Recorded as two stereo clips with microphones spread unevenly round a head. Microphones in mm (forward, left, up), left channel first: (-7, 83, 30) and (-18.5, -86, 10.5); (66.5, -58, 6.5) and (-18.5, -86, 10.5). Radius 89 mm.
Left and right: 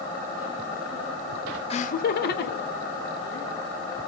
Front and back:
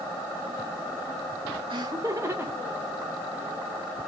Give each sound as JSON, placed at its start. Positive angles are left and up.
{"t": 1.7, "sound": "laughter", "azimuth_deg": 145, "distance_m": 0.6}